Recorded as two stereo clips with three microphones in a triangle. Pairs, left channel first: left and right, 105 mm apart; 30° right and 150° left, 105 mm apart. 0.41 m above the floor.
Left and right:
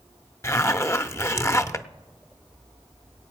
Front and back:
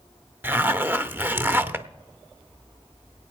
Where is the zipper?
105° left, 0.6 m.